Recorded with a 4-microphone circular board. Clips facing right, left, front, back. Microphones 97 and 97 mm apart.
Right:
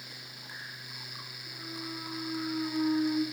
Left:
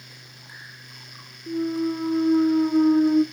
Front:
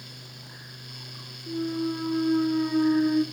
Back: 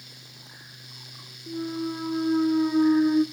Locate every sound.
1.5 s a clunk: 105° left, 0.6 m